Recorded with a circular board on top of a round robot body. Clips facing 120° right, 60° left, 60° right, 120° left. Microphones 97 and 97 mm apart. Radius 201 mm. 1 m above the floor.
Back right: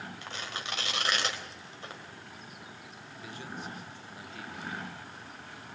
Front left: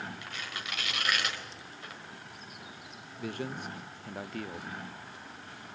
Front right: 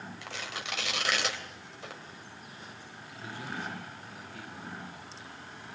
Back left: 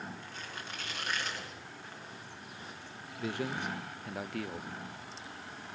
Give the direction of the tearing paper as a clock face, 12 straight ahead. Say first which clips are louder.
Back right 2 dB, front right 4 dB; 2 o'clock.